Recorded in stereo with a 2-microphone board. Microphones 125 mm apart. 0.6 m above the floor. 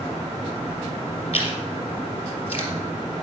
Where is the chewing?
50° left (ahead or behind), 3 m.